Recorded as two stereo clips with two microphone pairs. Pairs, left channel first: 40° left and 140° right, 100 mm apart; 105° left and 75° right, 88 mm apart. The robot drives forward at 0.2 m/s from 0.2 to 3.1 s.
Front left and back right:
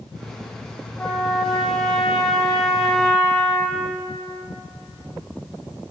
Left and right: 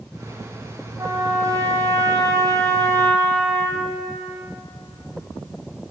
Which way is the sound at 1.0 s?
40° right.